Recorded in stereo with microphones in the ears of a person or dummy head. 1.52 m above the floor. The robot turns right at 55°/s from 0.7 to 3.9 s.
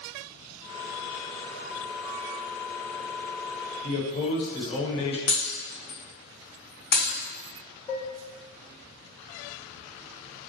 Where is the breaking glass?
60° left (ahead or behind), 2.5 m.